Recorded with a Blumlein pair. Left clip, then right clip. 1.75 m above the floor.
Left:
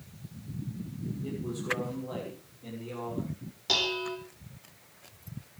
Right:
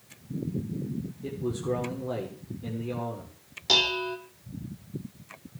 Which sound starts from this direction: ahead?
Dishes clattering, at 3.7 s.